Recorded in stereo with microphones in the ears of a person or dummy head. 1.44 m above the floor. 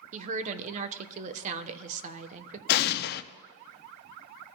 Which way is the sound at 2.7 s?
60° left (ahead or behind).